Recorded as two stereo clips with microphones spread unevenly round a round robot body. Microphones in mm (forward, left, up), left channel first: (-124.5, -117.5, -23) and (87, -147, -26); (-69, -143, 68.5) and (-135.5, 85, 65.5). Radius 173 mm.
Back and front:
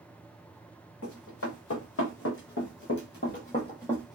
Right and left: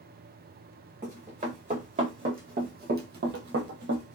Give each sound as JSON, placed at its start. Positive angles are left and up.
{"t": 1.0, "sound": "running footsteps", "azimuth_deg": 165, "distance_m": 1.9}